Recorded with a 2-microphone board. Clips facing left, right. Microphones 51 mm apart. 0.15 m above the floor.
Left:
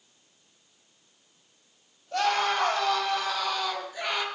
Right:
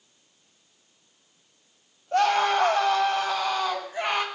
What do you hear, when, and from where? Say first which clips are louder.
2.1 s a scream: right 4 dB; 30° right (ahead or behind), 7.5 m; by 4.3 s 35° right (ahead or behind), 5 m